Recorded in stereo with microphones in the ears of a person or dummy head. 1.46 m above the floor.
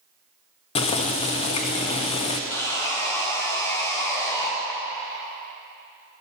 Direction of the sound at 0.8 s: 30° left (ahead or behind).